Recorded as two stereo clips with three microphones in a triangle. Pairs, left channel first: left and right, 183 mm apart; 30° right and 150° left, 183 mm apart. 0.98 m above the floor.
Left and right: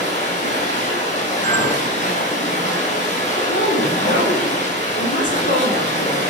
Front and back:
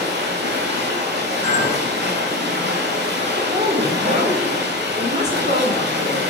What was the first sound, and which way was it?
Running water, 135° left.